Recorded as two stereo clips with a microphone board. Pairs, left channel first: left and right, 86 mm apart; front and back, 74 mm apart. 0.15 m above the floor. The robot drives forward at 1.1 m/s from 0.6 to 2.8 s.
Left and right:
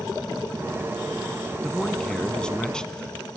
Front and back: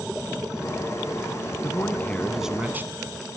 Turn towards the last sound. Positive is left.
turn(degrees=160)